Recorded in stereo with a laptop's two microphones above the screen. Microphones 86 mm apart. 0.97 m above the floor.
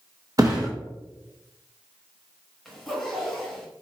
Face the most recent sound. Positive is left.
turn(degrees=0)  # may be behind; listen again after turning